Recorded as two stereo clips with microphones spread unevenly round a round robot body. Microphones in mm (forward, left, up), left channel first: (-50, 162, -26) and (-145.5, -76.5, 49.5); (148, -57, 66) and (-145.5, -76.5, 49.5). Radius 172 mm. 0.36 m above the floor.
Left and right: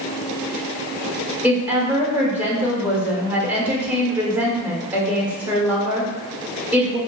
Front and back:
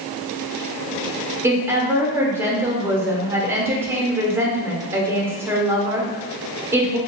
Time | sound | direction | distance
1.4 | a woman speaking | 125° left | 0.8 m